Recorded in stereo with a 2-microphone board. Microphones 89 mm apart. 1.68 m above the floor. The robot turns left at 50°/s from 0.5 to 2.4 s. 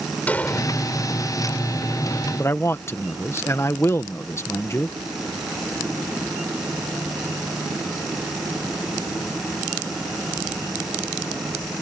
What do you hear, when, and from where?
0.3 s an explosion: 15° left (ahead or behind); by 0.7 s 25° left (ahead or behind)
2.4 s a man speaking: 30° left (ahead or behind)